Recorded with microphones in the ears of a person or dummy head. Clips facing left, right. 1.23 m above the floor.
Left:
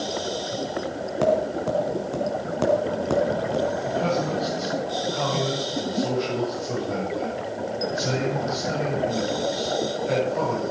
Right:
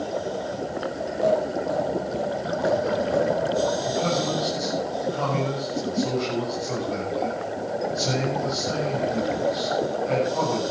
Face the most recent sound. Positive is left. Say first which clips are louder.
# even
turn(degrees=20)  # may be behind; listen again after turning